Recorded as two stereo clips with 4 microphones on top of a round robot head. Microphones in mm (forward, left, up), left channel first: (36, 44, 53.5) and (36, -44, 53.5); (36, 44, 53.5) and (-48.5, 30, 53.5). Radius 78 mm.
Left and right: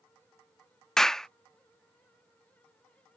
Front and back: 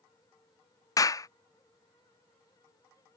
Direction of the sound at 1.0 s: 10° left.